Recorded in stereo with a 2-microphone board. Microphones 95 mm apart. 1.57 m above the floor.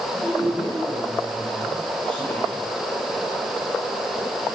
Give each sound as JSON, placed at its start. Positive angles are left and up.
{"t": 0.1, "sound": "a woman speaking", "side_deg": 5, "distance_m": 9.0}